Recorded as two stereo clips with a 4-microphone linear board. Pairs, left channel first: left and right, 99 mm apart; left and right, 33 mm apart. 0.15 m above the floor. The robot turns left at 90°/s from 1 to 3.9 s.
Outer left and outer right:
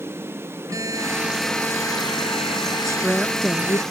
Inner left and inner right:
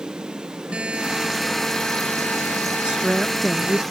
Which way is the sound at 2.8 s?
135° right.